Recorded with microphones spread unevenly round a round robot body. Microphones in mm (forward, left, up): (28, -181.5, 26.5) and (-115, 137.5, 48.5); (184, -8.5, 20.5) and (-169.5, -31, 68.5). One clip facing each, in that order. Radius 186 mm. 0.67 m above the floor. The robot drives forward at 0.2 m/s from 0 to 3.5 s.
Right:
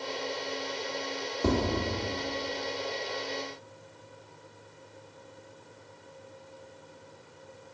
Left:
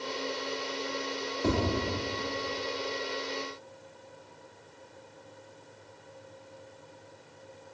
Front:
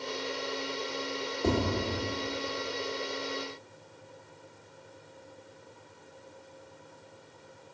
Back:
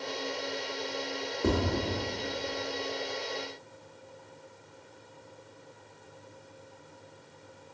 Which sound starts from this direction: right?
Tapping, at 1.4 s.